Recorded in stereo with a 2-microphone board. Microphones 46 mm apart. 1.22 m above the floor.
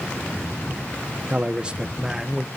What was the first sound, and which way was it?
A man speaking, 30° right (ahead or behind).